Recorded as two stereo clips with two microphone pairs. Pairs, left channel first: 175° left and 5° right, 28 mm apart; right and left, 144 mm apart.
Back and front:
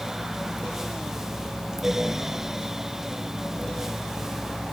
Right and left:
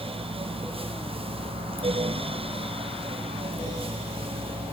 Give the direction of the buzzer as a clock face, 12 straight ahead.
No buzzer in this recording.